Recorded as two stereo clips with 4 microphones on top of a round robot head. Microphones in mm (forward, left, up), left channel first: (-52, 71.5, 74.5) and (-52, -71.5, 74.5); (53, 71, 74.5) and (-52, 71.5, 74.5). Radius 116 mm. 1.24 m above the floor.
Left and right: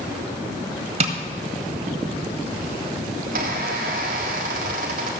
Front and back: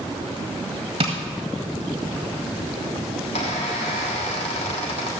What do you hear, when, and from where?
1.0 s tapping: 120° right, 1.4 m
3.2 s a squeak: 45° right, 1.4 m